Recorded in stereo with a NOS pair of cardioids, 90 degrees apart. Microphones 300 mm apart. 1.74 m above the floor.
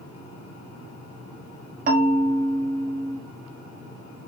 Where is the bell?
30° right, 1.1 m.